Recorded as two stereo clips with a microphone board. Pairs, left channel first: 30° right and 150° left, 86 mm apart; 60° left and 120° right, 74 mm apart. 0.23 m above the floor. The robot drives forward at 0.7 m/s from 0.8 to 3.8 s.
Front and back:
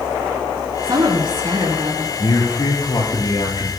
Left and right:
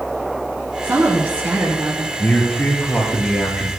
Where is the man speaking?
10° right, 4.5 m; by 3.7 s 15° right, 3.5 m.